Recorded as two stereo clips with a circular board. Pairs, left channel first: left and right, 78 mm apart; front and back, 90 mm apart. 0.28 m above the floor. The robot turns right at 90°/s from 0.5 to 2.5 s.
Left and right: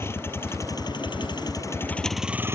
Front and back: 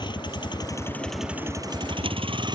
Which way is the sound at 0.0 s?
30° left.